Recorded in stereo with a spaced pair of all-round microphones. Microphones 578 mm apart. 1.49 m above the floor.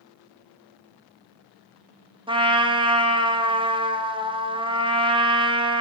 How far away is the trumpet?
About 0.6 m.